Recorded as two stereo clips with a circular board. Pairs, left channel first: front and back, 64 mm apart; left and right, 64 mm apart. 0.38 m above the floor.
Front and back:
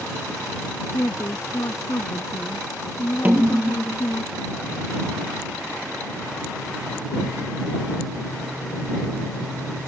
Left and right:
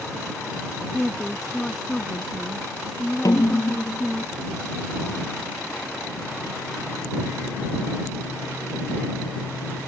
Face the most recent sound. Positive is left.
turn(degrees=115)